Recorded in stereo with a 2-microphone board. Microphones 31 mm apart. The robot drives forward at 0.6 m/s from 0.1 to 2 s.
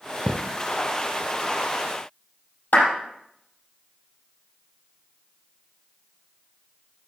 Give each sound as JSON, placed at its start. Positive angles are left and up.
{"t": 0.3, "sound": "a thud", "side_deg": -45, "distance_m": 1.2}
{"t": 2.7, "sound": "a clap", "side_deg": 80, "distance_m": 4.5}